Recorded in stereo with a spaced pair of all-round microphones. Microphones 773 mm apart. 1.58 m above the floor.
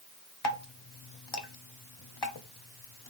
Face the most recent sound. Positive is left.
turn(degrees=30)  # may be behind; listen again after turning